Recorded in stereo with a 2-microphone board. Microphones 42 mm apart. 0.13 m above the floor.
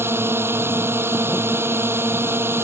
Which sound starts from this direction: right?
A drone, at 0.0 s.